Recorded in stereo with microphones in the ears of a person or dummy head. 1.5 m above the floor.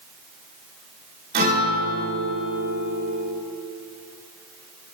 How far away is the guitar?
About 1.8 m.